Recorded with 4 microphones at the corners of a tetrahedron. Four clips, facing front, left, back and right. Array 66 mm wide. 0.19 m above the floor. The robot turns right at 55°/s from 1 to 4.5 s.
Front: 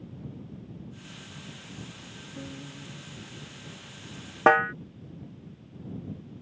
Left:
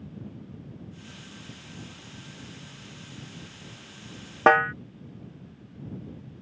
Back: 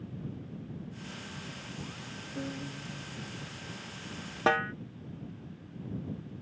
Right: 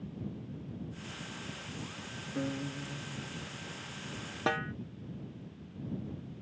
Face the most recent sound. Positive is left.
turn(degrees=60)